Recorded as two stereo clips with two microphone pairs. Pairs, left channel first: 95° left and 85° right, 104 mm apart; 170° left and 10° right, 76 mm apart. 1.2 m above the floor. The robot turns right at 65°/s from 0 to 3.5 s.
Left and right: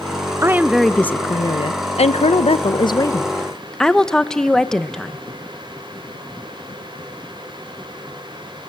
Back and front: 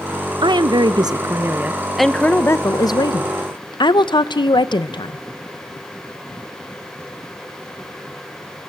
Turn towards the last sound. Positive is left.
turn(degrees=180)